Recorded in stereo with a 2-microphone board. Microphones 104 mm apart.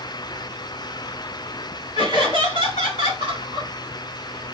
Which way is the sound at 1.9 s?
50° left (ahead or behind).